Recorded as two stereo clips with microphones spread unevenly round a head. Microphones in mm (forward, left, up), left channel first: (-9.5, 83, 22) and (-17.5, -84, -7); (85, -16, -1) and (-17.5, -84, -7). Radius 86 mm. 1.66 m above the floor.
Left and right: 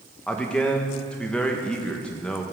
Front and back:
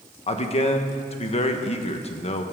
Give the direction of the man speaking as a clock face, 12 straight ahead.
12 o'clock.